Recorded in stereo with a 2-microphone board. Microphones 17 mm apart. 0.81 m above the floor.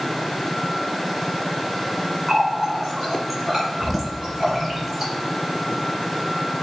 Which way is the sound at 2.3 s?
20° right (ahead or behind).